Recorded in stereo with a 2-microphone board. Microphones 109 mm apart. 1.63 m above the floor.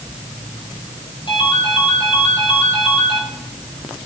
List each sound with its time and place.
1.3 s a ringtone: 50° left (ahead or behind), 6.5 m